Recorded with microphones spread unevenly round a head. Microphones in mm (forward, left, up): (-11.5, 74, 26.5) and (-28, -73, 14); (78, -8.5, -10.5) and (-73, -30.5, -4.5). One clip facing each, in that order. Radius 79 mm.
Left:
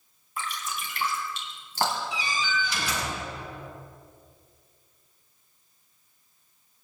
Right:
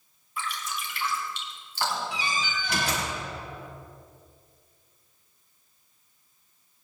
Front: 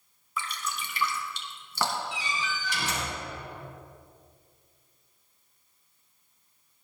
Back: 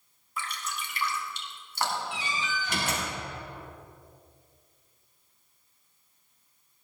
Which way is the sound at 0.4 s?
30° left.